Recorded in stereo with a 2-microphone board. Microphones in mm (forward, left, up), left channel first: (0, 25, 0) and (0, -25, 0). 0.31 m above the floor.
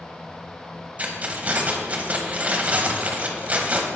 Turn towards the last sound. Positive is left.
turn(degrees=-30)  # may be behind; listen again after turning